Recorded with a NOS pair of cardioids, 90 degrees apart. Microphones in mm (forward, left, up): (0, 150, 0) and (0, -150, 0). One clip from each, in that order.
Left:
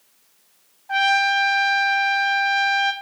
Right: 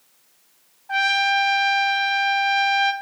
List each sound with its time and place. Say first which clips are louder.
0.9 s a trumpet: left 1 dB; straight ahead, 0.8 m